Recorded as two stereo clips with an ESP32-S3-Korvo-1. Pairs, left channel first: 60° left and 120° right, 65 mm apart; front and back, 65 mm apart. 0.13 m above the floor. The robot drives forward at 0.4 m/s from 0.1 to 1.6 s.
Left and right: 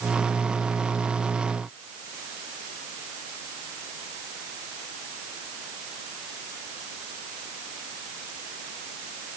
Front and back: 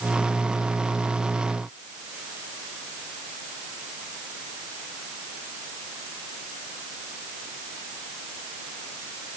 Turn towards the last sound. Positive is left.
No sound to turn to.